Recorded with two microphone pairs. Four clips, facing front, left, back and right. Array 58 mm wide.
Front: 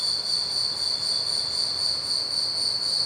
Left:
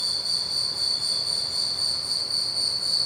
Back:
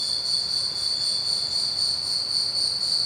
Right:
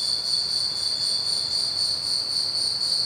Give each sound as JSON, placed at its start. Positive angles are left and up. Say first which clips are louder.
{"t": 0.0, "sound": "an insect", "louder": "right 1 dB, even", "azimuth_deg": -120, "distance_m": 0.8}